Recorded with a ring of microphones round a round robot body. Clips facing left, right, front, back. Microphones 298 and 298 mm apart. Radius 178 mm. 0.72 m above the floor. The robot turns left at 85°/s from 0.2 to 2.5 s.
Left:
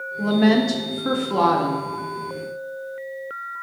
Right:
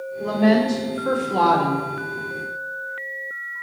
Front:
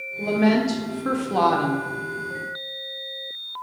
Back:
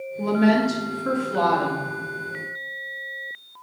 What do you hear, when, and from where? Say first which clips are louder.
0.2 s a woman speaking: left 1 dB, even; 115° left, 0.9 m; by 1.9 s 30° right, 0.9 m